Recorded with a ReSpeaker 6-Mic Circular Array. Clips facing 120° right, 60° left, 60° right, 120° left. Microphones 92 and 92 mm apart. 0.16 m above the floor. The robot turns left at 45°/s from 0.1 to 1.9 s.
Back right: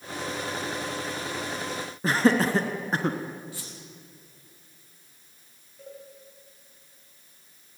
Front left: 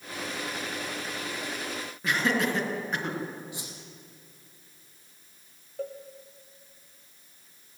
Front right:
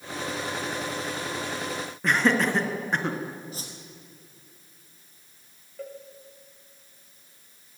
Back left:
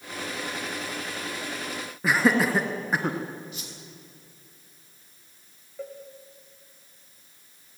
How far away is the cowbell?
About 4.5 m.